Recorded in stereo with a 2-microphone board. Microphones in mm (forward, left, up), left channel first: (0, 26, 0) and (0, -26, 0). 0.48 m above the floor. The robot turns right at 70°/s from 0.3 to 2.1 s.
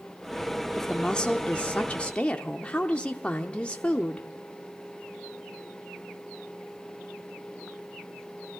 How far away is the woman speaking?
About 0.7 m.